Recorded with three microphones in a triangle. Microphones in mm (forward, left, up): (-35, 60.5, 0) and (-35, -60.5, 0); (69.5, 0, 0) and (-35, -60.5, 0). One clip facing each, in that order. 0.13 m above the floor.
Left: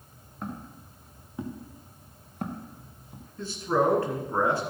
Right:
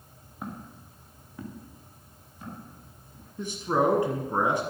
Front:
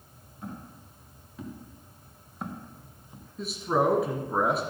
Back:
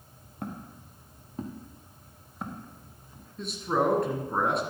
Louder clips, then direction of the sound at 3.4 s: Even, front 1 dB; 55° right.